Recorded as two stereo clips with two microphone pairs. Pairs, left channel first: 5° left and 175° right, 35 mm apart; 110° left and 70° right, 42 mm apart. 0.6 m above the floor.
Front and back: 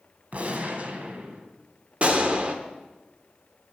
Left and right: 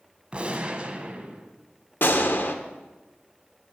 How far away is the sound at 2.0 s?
About 1.1 m.